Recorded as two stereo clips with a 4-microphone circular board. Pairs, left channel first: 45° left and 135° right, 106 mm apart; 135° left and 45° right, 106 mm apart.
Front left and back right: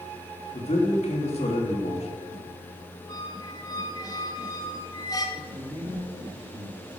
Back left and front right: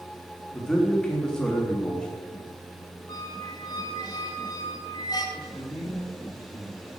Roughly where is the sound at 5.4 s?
Behind right.